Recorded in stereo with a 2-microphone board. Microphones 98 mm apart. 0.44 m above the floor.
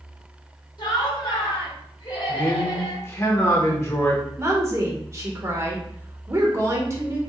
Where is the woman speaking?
30° right (ahead or behind), 1.2 m.